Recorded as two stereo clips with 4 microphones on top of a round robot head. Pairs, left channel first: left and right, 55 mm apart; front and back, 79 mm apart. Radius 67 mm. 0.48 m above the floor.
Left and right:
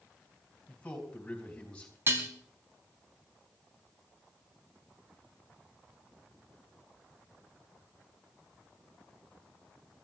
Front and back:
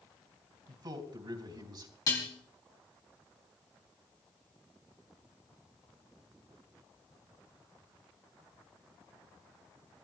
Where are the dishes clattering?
50° right, 3 m.